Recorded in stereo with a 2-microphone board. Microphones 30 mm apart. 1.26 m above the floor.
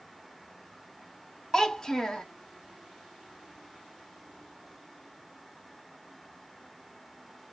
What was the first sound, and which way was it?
A child speaking, 15° left (ahead or behind).